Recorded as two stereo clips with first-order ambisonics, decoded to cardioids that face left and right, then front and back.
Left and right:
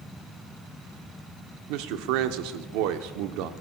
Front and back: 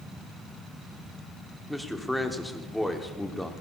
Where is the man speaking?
85° right, 0.7 m.